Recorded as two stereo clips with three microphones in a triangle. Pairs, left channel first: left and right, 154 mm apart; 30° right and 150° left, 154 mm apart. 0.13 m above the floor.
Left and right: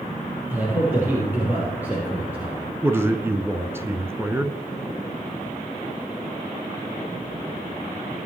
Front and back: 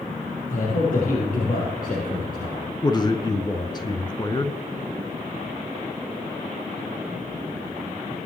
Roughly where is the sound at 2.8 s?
Ahead right.